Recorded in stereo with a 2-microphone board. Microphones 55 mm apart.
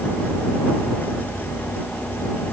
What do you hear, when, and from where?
Only background noise.